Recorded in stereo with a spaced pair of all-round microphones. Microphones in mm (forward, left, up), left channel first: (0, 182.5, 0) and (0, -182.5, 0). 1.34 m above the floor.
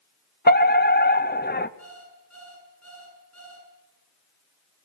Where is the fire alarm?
25° left (ahead or behind), 1.1 m.